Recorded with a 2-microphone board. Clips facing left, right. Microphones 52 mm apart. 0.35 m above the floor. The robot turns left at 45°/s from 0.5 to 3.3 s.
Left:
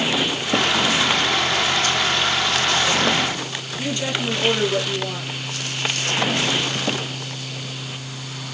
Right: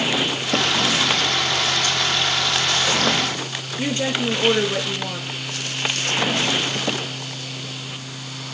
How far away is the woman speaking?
About 5.5 m.